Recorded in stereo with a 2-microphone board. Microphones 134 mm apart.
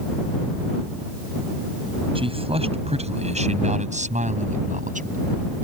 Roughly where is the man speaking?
Right.